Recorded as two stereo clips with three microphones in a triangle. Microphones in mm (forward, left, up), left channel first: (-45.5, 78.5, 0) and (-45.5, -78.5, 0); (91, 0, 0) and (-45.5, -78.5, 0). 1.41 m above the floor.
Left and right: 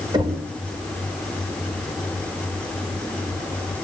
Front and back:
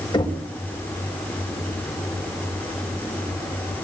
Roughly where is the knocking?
Ahead right.